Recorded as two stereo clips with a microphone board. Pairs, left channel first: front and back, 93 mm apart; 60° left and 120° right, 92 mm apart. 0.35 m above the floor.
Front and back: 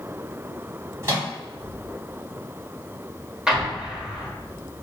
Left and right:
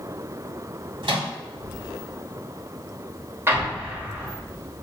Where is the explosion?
100° right, 0.8 m.